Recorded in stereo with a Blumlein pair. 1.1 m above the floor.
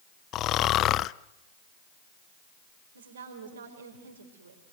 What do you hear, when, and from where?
0.3 s snoring: 35° left, 0.5 m
3.0 s a woman speaking: 65° right, 5 m